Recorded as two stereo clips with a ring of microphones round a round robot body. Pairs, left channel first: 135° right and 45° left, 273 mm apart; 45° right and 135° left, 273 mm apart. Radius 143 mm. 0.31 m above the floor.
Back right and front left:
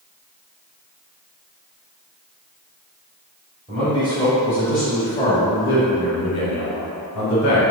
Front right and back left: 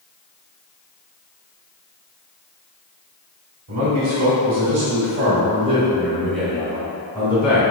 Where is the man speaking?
110° left, 1.9 m; by 7.6 s 110° right, 2 m.